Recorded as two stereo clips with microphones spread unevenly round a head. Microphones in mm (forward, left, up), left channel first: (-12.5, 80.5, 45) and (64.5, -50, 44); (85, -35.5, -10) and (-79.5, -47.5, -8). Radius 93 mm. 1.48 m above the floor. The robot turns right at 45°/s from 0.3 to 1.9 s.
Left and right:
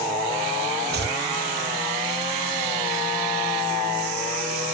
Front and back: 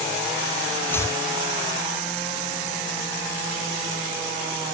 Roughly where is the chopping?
Right.